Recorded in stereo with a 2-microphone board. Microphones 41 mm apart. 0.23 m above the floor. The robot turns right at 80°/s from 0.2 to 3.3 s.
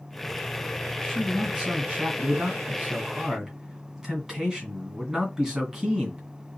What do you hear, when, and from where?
1.0 s a man speaking: 165° left, 1.8 m; by 6.3 s 15° right, 1.8 m